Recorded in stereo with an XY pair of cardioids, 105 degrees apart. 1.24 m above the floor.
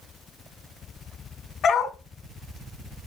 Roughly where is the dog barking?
Ahead left.